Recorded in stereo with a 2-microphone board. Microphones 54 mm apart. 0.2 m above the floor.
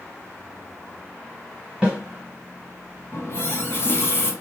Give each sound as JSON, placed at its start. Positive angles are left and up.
{"t": 1.8, "sound": "a snare drum", "side_deg": -20, "distance_m": 1.4}
{"t": 3.1, "sound": "a running tap", "side_deg": 45, "distance_m": 1.1}